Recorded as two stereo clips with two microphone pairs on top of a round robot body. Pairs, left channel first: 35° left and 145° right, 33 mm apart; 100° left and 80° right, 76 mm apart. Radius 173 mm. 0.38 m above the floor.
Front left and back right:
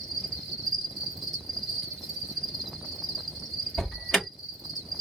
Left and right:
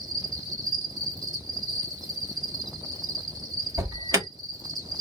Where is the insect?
55° right, 3 m.